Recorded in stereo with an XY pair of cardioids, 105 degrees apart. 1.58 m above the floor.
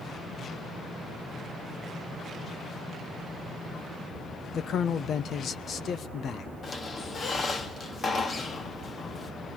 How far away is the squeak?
About 2 m.